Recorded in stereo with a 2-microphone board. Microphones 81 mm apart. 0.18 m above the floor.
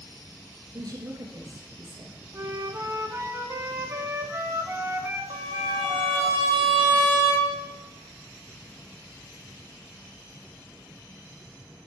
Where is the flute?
35° right (ahead or behind), 1.2 m.